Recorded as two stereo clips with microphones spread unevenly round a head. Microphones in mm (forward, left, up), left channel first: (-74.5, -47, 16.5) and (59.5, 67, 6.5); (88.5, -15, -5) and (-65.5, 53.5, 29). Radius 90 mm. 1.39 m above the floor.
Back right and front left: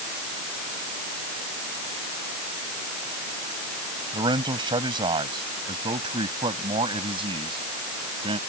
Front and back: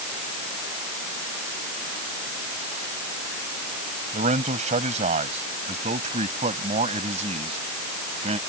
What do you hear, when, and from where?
4.1 s a man speaking: 105° left